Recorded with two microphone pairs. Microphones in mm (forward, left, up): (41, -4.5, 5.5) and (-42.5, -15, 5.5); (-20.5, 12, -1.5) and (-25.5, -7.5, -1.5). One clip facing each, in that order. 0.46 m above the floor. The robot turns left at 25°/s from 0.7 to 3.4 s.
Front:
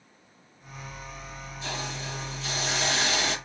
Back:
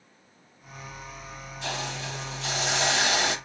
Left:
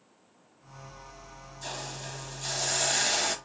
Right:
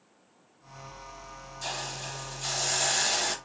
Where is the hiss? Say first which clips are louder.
Back 2 dB, right 3 dB; 155° right, 0.9 m; by 3.4 s 160° left, 0.9 m.